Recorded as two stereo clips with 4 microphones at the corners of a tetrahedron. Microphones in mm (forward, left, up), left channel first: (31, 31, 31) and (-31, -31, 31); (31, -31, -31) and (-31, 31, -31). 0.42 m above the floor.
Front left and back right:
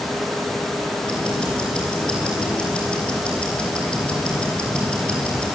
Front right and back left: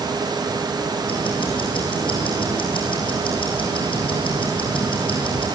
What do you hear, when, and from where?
1.1 s ticking: 35° right, 7 m